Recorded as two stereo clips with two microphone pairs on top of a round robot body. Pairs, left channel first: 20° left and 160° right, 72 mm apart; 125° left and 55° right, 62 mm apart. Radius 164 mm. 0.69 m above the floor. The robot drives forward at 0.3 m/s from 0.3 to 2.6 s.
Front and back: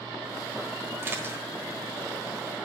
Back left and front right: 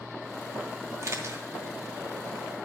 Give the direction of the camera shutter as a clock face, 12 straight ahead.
3 o'clock.